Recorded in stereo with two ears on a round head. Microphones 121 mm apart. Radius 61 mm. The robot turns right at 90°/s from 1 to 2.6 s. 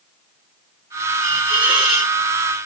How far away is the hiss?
About 1.5 m.